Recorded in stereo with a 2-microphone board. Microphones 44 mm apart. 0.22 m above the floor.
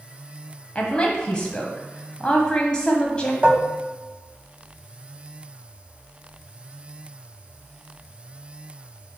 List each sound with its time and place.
0.8 s a woman speaking: 20° left (ahead or behind), 1.0 m
3.4 s dishes clattering: 35° right (ahead or behind), 0.7 m